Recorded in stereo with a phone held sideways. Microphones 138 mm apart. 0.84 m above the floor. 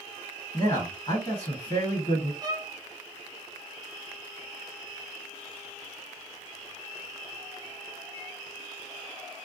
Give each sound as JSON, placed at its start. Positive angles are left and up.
{"t": 0.5, "sound": "a man speaking", "side_deg": 45, "distance_m": 1.4}
{"t": 2.4, "sound": "a violin", "side_deg": -30, "distance_m": 0.5}